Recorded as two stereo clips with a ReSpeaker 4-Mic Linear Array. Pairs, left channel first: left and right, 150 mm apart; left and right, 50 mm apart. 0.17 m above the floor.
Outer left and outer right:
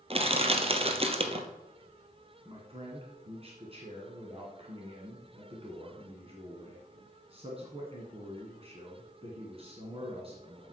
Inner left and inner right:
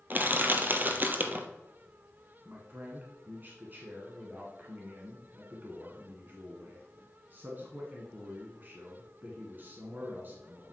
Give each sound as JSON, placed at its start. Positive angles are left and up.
{"t": 0.1, "sound": "crushing", "side_deg": -40, "distance_m": 1.2}
{"t": 2.5, "sound": "a man speaking", "side_deg": -40, "distance_m": 1.8}